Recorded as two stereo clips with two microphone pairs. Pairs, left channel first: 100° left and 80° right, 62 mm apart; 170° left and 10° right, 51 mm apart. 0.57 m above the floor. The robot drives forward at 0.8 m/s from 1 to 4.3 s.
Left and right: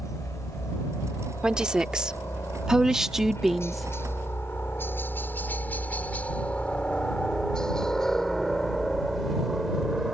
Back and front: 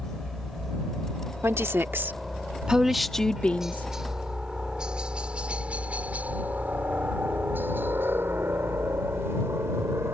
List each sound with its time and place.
0.0 s a helicopter: 90° left; by 10.1 s straight ahead
1.4 s a woman speaking: 10° right; by 3.9 s 165° right